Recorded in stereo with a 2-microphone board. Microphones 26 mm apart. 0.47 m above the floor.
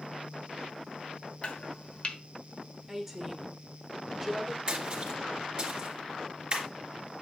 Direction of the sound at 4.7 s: 35° right (ahead or behind).